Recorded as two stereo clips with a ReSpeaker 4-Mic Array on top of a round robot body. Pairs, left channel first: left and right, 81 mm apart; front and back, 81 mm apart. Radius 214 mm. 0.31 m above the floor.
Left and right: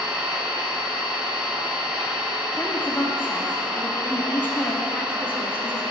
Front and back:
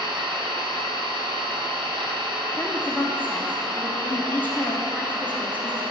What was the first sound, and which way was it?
An engine running, 170° right.